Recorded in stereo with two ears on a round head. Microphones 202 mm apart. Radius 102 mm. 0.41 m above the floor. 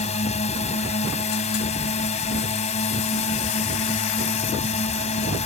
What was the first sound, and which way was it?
A drone, 30° left (ahead or behind).